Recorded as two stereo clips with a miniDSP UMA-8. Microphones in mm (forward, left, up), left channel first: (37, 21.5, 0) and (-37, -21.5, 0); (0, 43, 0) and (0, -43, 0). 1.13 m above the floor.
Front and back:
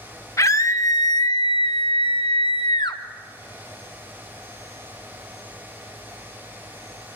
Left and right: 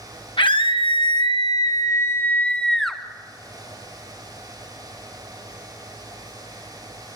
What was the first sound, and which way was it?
A scream, 85° left.